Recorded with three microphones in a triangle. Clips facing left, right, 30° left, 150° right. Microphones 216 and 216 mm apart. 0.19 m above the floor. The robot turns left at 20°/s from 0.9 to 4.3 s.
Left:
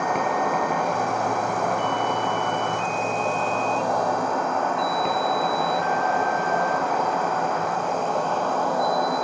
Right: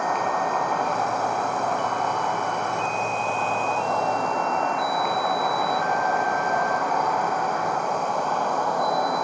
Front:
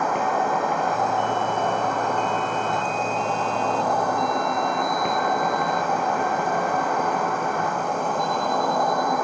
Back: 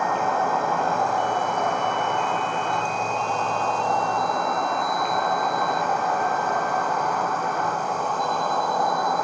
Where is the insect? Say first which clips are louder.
Left 2 dB, front 1 dB; 100° left, 1.1 m; by 9.2 s 30° left, 1.1 m.